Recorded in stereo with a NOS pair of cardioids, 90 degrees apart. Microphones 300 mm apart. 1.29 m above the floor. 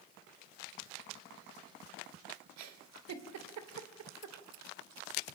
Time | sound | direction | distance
2.6 | a giggle | 65° right | 3 m